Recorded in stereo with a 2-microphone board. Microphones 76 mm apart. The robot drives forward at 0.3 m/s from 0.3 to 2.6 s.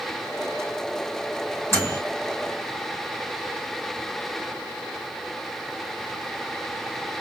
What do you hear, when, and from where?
1.7 s a microwave: 30° left (ahead or behind), 4.5 m